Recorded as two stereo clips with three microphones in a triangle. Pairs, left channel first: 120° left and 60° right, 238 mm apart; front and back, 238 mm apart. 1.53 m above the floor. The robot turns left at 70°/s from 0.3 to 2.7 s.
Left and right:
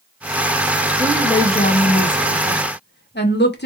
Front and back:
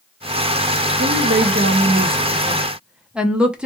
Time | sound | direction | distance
1.0 | a woman speaking | 145° right | 0.8 m